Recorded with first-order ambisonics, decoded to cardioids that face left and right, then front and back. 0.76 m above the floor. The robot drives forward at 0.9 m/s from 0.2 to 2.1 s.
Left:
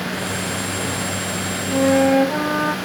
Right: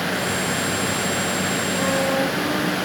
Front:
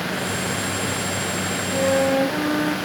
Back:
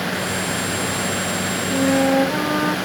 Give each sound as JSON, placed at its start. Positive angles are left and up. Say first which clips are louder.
{"t": 1.7, "sound": "a flute", "louder": "left 8 dB, back 1 dB", "azimuth_deg": 75, "distance_m": 0.7}